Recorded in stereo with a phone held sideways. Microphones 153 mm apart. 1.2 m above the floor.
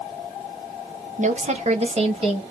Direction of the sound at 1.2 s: 55° right (ahead or behind).